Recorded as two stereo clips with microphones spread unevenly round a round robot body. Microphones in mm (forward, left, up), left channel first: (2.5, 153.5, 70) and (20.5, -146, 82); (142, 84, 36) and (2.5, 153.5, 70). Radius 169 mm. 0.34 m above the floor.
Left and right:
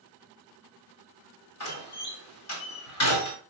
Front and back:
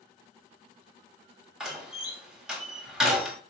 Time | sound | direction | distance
1.6 | a door slam | 60° left | 1.9 m